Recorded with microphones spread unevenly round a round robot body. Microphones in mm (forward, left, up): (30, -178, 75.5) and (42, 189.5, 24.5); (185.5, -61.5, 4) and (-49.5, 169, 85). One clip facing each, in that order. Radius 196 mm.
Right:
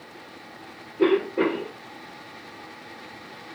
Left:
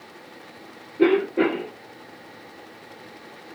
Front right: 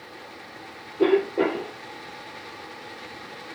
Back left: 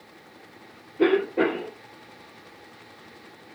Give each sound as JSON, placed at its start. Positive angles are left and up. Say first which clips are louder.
{"t": 1.0, "sound": "a cough", "louder": "left 2 dB, front right 1 dB", "azimuth_deg": 150, "distance_m": 1.7}